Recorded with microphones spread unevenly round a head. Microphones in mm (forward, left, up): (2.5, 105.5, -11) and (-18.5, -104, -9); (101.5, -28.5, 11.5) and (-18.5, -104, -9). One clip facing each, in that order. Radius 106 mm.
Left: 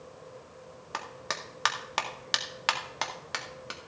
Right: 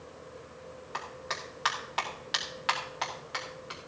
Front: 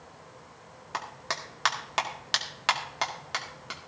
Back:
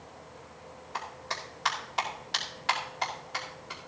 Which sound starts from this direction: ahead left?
A clap, at 0.9 s.